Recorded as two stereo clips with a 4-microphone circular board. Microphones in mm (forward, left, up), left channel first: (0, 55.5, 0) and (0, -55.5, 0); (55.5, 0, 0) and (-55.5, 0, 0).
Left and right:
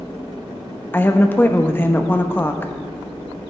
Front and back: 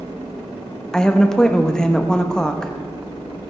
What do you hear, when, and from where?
0.9 s a woman speaking: 70° left, 0.8 m